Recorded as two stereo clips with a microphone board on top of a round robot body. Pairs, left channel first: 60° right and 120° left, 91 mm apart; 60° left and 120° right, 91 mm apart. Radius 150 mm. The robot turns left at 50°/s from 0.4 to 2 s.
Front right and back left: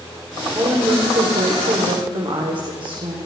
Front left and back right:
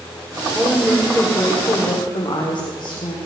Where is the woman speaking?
165° left, 1.8 m; by 3.2 s 95° left, 1.8 m.